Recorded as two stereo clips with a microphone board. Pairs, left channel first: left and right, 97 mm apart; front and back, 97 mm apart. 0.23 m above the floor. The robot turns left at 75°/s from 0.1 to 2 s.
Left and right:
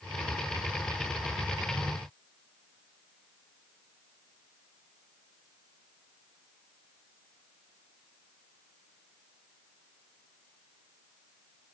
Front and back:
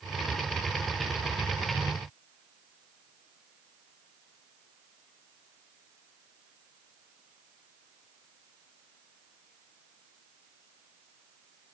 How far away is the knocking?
I don't hear knocking.